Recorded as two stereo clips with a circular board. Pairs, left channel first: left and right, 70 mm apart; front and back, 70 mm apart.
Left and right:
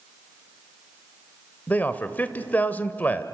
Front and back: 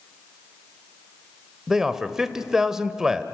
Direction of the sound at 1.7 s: 110° left.